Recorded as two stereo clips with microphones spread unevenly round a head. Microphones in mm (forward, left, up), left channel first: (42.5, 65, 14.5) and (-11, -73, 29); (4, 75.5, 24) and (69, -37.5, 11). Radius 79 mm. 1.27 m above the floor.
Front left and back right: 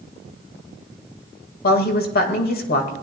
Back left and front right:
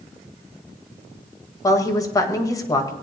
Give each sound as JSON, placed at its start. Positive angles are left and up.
{"t": 1.6, "sound": "a woman speaking", "azimuth_deg": 55, "distance_m": 2.0}